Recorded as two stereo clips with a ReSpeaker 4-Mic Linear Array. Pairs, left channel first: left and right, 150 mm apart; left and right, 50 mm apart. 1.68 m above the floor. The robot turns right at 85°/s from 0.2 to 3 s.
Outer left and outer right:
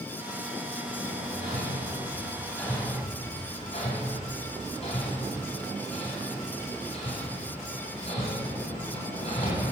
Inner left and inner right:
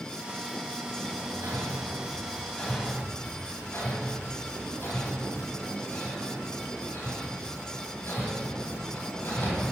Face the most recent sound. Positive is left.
turn(degrees=45)  # may be behind; listen again after turning